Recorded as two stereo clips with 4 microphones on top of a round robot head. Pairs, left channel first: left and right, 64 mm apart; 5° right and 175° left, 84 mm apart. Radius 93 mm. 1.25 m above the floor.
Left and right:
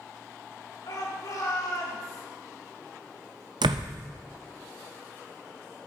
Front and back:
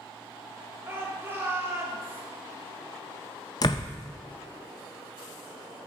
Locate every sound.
0.8 s a shout: 115° left, 3.5 m
3.6 s a door slam: 60° right, 0.5 m